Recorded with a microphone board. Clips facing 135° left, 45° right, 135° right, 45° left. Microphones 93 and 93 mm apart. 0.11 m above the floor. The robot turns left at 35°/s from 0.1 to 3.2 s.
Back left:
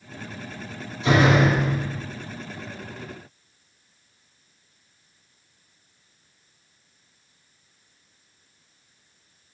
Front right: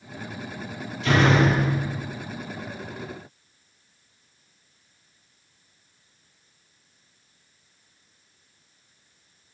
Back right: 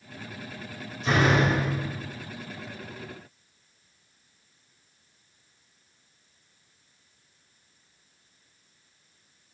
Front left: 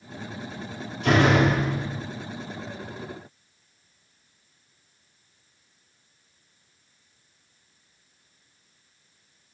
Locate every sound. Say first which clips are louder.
1.0 s a door slam: back left 1 dB, front left 3 dB; 65° left, 2.5 m; by 2.0 s 30° left, 2.5 m